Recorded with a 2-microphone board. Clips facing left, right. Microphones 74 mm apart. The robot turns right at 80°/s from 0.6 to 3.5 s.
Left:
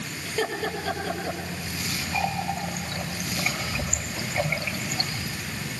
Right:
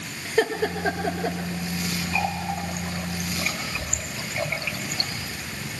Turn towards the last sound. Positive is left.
turn(degrees=20)  # may be behind; listen again after turning